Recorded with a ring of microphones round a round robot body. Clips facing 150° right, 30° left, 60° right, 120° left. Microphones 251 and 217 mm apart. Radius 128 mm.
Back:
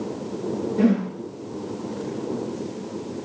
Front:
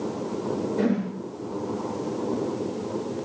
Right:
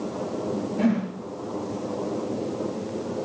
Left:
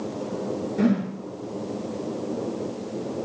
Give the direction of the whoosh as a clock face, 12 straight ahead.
8 o'clock.